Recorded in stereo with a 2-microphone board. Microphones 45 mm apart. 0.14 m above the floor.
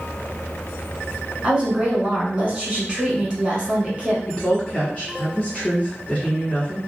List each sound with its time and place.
1.4 s a woman speaking: 25° right (ahead or behind), 1.2 m
4.3 s a woman speaking: 30° left (ahead or behind), 1.9 m